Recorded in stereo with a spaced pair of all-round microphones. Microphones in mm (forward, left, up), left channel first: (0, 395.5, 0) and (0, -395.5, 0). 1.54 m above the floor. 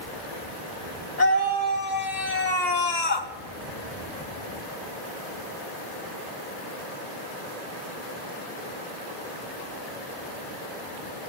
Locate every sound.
1.2 s a scream: 65° left (ahead or behind), 5 m; by 3.3 s 60° left (ahead or behind), 1.7 m